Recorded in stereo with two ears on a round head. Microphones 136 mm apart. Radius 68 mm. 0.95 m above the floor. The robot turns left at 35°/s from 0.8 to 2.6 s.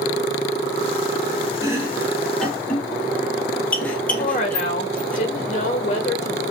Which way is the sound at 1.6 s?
25° right (ahead or behind).